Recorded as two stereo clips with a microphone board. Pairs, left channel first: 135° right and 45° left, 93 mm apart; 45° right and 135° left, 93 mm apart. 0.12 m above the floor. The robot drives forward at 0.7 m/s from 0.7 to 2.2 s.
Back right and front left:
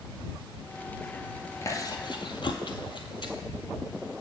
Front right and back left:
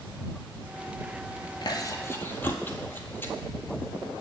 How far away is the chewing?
About 0.7 m.